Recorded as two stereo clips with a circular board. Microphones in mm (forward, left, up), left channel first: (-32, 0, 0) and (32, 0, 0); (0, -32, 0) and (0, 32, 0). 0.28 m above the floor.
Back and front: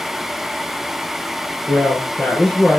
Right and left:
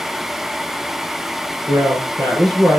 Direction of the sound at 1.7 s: 105° left.